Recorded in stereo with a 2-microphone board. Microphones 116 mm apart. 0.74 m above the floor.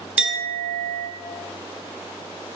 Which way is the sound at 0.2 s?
10° right (ahead or behind).